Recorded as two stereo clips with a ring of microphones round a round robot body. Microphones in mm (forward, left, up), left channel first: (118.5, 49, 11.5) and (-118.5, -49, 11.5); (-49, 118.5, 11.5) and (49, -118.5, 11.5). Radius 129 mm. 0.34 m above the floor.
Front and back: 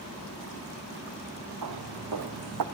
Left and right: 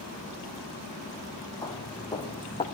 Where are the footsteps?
170° right, 2.5 m; by 2.6 s 175° right, 1.7 m.